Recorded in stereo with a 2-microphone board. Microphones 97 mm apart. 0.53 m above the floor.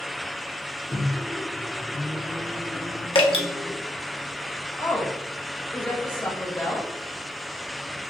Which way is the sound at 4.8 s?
25° left (ahead or behind).